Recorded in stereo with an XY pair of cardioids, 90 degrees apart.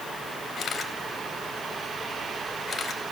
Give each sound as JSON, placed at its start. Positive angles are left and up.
{"t": 0.6, "sound": "a camera shutter", "azimuth_deg": 55, "distance_m": 3.5}